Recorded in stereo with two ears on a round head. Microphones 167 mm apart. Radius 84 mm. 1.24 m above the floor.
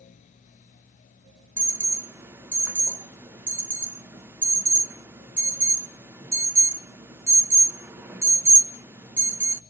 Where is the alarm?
10° right (ahead or behind), 0.5 m.